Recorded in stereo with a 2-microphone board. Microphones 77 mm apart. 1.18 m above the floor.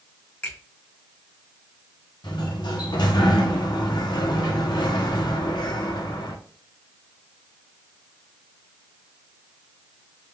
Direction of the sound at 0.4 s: 20° left (ahead or behind).